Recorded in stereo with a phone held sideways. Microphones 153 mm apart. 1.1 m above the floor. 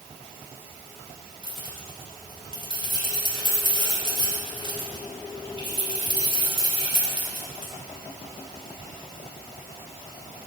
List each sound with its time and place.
1.4 s keys jangling: 35° right (ahead or behind), 3 m